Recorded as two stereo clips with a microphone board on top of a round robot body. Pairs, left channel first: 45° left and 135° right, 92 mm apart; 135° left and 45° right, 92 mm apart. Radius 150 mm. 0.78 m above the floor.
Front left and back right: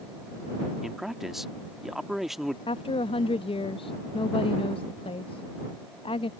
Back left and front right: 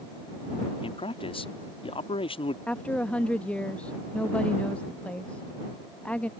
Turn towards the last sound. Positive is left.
turn(degrees=60)